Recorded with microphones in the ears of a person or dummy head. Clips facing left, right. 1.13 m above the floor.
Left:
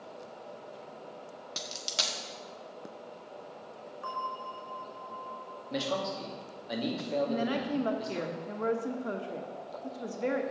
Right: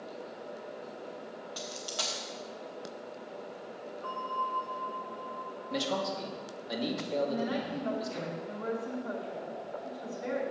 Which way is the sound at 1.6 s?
40° left (ahead or behind).